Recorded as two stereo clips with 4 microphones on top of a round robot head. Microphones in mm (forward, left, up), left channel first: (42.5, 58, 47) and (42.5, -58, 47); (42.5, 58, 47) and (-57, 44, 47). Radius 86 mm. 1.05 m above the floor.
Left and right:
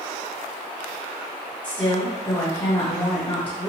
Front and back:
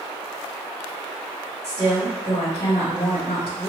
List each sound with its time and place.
1.6 s a woman speaking: 20° left, 1.5 m